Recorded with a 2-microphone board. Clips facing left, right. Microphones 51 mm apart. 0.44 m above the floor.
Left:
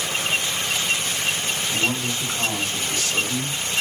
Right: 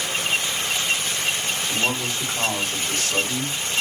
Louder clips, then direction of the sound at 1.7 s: Even; 60° right (ahead or behind).